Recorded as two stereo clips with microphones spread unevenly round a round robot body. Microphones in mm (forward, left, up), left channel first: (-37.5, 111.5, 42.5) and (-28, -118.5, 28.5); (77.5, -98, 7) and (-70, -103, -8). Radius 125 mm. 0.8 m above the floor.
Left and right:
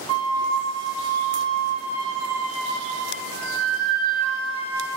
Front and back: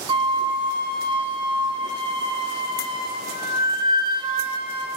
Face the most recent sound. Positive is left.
turn(degrees=-120)